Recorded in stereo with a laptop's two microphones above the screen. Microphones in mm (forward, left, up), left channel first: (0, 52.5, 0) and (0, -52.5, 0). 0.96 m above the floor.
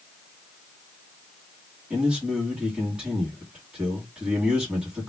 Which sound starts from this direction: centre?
A man speaking, at 1.9 s.